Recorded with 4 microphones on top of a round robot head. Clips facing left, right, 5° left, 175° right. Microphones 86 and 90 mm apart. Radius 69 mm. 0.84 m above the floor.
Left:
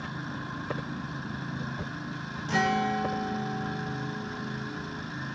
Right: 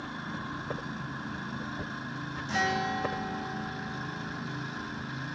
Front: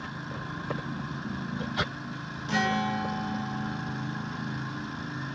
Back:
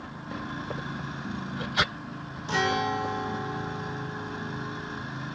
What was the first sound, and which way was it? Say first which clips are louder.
A guitar: left 4 dB, back 1 dB; 135° left.